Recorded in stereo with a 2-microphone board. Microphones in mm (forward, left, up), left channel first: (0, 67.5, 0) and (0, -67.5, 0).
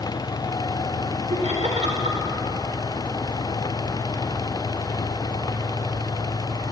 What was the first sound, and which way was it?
Laughter, 55° right (ahead or behind).